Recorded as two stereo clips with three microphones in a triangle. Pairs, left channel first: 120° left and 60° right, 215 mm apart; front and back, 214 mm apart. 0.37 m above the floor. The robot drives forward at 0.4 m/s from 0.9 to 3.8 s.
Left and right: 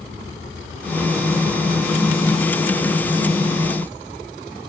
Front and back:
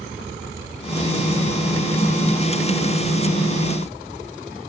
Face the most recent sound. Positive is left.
No sound to turn to.